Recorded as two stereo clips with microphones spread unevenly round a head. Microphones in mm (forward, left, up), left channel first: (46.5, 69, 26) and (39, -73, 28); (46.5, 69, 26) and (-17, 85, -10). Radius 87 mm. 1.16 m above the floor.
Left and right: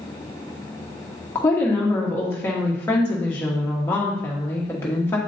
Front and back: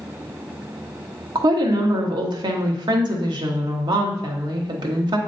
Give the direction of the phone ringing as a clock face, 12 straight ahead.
No phone ringing in this recording.